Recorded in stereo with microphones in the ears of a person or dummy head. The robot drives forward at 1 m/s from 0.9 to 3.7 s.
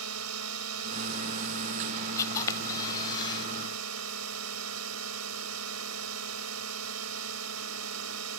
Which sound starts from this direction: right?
A drone, at 0.0 s.